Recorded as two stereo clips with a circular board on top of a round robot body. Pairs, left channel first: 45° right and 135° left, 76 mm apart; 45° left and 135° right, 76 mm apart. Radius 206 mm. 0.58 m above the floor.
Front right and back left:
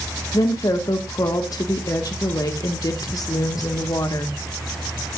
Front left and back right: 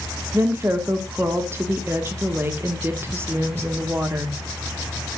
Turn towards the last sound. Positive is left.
turn(degrees=-75)